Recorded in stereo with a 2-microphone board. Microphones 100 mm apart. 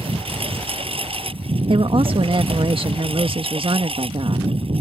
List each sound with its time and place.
0.0 s a lawn mower: 70° right (ahead or behind)
1.7 s a woman speaking: 60° right (ahead or behind)